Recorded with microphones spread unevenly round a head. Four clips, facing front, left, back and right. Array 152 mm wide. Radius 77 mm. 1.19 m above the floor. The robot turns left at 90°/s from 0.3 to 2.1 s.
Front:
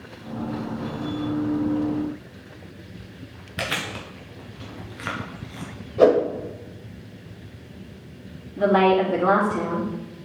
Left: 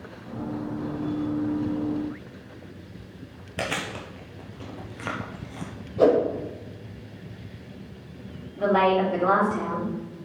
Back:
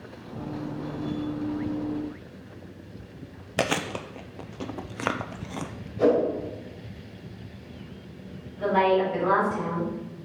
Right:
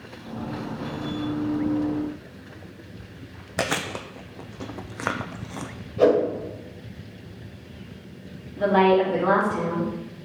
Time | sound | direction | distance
3.6 | chewing | 145° right | 0.6 m
6.0 | a whoosh | 10° left | 1.7 m
8.6 | a woman speaking | 10° right | 3 m